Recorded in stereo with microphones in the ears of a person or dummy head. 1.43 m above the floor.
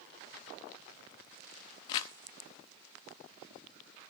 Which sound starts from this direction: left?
Crumpling, at 1.9 s.